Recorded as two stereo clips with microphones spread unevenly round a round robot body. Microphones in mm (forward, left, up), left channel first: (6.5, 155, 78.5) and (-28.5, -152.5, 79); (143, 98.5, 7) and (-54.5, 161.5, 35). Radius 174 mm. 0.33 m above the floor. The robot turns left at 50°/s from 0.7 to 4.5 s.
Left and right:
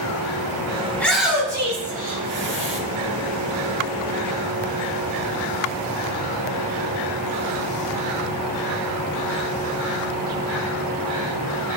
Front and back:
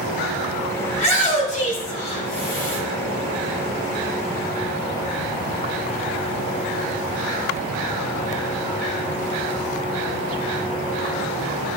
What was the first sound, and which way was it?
A shout, 5° left.